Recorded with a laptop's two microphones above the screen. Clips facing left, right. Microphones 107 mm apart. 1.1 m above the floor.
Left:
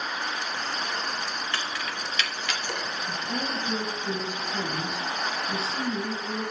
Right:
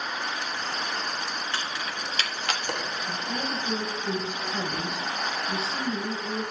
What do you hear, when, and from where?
1.5 s keys jangling: 15° right (ahead or behind), 1.3 m; by 2.9 s 60° right (ahead or behind), 1.2 m
3.0 s a woman speaking: centre (ahead or behind), 2.5 m